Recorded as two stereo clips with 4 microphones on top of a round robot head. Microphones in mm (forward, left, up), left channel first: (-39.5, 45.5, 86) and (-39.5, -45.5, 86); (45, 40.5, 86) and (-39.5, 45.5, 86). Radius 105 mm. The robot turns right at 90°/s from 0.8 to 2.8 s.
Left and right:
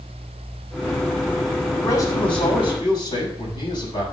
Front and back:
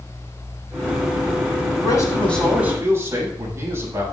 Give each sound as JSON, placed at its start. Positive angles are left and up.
{"t": 1.8, "sound": "a man speaking", "azimuth_deg": 25, "distance_m": 7.0}